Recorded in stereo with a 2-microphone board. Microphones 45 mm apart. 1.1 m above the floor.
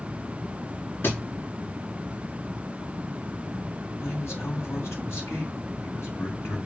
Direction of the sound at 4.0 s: 80° left.